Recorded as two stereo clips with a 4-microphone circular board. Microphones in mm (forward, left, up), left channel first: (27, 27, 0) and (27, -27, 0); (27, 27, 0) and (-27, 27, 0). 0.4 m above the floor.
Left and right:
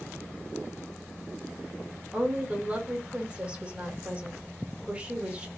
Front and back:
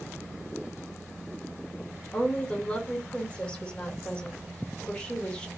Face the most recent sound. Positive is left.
turn(degrees=-50)